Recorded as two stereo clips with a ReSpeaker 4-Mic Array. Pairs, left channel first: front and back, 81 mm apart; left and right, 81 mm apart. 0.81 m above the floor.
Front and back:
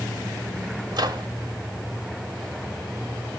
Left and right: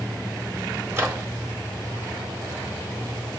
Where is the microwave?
150° right, 1.7 m.